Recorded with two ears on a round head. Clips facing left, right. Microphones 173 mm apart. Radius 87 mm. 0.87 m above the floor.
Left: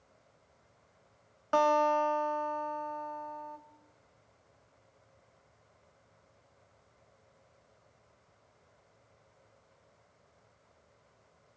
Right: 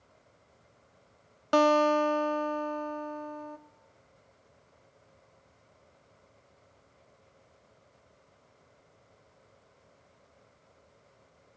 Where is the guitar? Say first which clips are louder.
Right 4 dB; 45° right (ahead or behind), 1.6 m.